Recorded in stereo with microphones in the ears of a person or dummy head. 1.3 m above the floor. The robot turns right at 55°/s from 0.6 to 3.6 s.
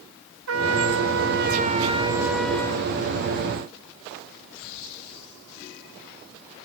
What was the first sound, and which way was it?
A trumpet, 100° right.